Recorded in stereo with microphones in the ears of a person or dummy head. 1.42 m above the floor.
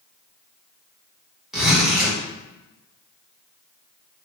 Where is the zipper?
5° left (ahead or behind), 1.4 m.